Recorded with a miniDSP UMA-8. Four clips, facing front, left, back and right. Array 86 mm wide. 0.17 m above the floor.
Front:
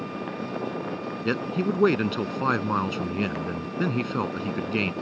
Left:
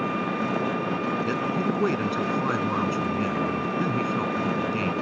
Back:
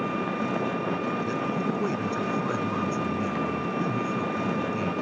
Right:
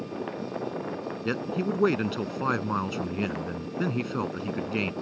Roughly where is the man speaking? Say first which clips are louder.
Left 3 dB, front 1 dB; ahead.